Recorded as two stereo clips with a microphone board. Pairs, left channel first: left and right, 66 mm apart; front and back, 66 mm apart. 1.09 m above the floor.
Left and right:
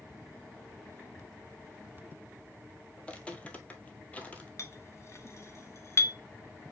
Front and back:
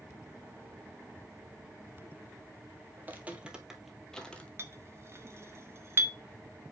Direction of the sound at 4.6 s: 130° left.